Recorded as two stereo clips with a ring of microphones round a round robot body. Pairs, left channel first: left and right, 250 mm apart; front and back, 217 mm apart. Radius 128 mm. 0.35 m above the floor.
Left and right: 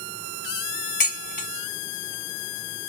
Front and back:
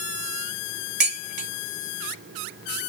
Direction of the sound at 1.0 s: 145° left.